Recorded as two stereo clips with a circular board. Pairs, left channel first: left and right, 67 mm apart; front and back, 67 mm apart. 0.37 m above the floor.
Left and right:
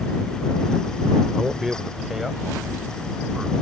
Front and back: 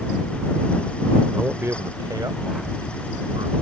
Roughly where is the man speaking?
Behind.